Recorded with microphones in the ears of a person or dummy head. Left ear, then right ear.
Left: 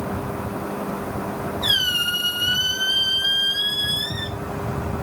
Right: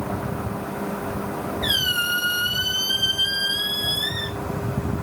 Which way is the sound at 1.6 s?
20° left (ahead or behind).